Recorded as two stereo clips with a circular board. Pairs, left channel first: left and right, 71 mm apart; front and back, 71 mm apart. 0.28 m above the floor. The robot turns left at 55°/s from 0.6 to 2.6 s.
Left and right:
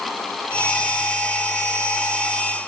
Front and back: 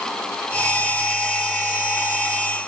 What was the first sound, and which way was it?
Only background noise.